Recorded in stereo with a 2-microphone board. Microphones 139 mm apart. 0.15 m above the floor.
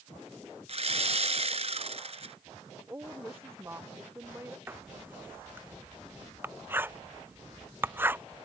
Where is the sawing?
55° right (ahead or behind).